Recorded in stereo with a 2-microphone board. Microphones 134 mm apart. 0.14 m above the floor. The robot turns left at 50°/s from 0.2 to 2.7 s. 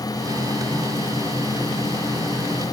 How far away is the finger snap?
I don't hear a finger snap.